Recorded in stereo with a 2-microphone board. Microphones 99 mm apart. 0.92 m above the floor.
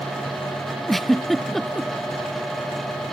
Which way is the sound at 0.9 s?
Centre (ahead or behind).